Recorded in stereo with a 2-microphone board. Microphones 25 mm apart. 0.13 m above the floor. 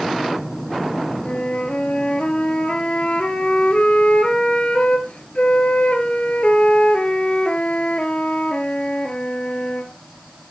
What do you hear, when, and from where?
1.2 s a flute: 55° left (ahead or behind), 2 m